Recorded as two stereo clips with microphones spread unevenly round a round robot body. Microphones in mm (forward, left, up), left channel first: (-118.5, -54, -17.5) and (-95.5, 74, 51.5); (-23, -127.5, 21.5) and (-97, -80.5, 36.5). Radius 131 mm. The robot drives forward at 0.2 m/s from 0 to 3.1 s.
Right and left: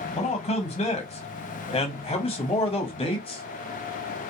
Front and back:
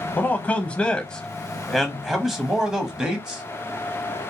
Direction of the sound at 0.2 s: 95° right.